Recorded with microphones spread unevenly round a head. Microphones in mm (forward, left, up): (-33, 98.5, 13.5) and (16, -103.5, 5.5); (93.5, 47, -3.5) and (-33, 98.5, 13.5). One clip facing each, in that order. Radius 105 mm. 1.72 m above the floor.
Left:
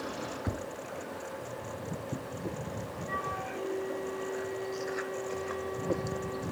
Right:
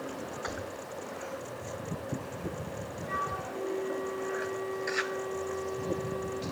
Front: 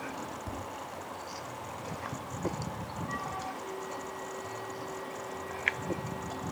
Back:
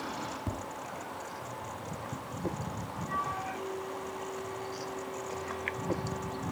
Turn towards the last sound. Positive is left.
turn(degrees=-155)